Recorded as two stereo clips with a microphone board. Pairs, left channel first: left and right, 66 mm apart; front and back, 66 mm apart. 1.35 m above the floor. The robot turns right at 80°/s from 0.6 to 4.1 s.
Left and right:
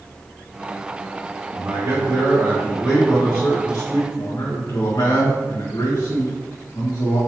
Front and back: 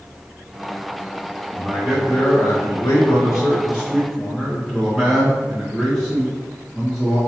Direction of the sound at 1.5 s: 120° right.